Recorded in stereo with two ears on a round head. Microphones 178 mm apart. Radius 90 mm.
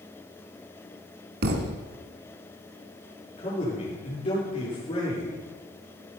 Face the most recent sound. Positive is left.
turn(degrees=30)  # may be behind; listen again after turning